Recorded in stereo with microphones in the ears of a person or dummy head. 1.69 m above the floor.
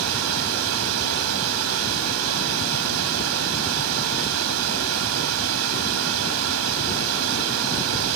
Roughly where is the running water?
Right.